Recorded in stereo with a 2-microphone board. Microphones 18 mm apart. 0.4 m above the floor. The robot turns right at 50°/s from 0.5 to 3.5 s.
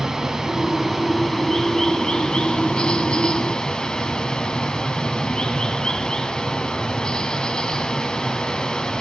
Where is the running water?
25° right, 1.8 m; by 9.0 s 125° left, 1.8 m.